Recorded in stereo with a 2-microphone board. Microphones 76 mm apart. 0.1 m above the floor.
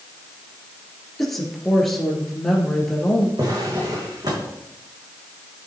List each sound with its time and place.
1.2 s a woman speaking: 5° left (ahead or behind), 2 m
3.4 s a drawer: 55° right (ahead or behind), 3 m